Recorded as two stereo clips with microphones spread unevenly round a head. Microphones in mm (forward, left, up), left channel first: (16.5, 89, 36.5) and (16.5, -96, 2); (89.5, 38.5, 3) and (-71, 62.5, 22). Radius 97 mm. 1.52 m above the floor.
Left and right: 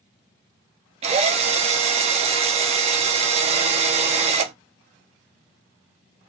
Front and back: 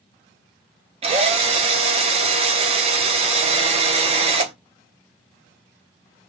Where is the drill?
150° right, 0.6 m.